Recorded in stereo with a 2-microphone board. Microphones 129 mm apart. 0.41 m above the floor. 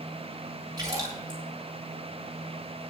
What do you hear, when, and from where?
0.8 s a splash: 30° right (ahead or behind), 7.5 m